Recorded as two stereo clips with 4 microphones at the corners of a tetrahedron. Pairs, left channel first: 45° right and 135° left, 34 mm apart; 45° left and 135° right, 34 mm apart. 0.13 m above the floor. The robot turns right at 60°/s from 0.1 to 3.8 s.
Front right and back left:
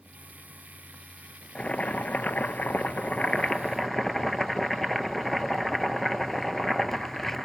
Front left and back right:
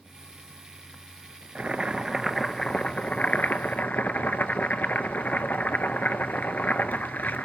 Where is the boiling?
95° right, 0.5 m; by 7.5 s 40° left, 0.5 m.